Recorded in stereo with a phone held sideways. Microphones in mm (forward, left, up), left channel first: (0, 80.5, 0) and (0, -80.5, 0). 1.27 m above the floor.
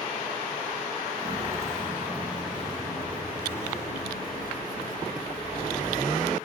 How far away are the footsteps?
About 1.5 m.